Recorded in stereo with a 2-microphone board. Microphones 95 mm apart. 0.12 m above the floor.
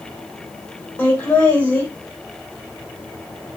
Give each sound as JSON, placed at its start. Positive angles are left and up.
{"t": 1.0, "sound": "laughter", "side_deg": 25, "distance_m": 4.0}